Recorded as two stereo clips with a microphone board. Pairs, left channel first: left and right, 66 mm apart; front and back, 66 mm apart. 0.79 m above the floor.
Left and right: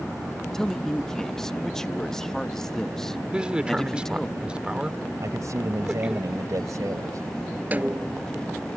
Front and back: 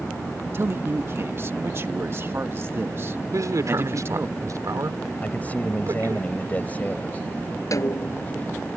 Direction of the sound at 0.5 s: 170° left.